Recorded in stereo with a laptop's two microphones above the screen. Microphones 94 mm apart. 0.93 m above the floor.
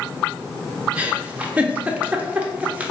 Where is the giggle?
15° right (ahead or behind), 0.5 m.